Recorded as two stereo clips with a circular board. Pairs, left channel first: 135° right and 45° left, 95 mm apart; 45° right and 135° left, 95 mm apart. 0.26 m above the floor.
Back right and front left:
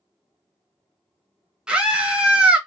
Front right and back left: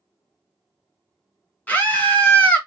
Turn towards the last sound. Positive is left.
turn(degrees=-20)